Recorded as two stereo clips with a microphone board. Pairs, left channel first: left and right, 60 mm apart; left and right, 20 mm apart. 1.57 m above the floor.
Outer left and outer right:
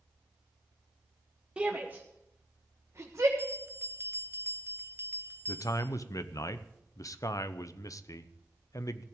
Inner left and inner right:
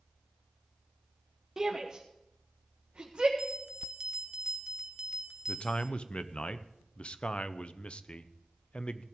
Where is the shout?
20° right (ahead or behind), 1.0 m; by 3.3 s 65° right (ahead or behind), 1.6 m.